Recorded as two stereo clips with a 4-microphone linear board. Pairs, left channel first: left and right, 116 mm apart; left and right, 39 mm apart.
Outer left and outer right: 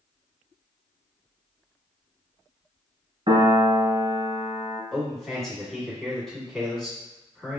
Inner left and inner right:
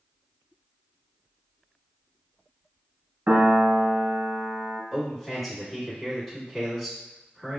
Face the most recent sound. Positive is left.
turn(degrees=5)  # may be behind; listen again after turning